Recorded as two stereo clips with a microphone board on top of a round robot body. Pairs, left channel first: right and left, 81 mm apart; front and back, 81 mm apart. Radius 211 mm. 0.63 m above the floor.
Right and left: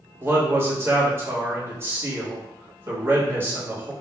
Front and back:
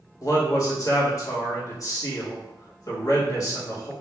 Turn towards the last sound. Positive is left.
turn(degrees=35)